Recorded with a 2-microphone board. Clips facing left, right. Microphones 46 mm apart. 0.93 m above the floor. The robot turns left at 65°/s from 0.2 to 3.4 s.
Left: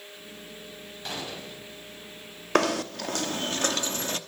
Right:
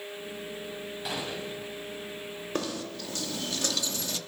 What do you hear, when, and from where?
1.1 s a gunshot: 5° right, 5.5 m; by 1.7 s 50° right, 5.5 m
2.5 s knocking: 100° left, 1.1 m; by 4.2 s 45° left, 1.1 m